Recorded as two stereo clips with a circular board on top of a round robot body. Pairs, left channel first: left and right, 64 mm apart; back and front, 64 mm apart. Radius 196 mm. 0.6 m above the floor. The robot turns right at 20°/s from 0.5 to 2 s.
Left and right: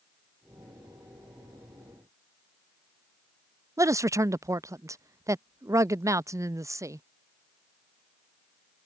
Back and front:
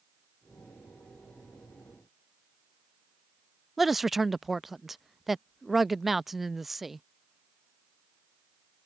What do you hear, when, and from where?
3.8 s a man speaking: 85° right